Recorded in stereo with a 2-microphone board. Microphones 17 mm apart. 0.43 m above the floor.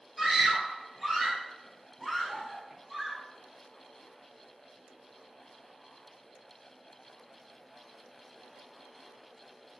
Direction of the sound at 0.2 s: 15° right (ahead or behind).